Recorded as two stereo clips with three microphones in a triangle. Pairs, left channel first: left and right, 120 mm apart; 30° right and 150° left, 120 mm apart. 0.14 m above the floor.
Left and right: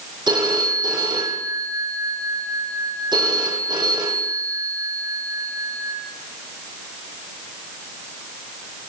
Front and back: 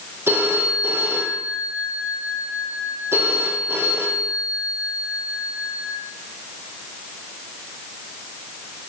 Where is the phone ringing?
140° right, 3.5 m.